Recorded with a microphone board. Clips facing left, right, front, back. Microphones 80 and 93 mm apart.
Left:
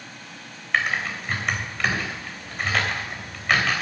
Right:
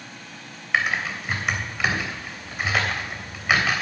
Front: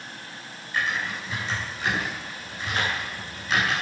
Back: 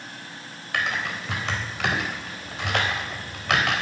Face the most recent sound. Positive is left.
turn(degrees=-175)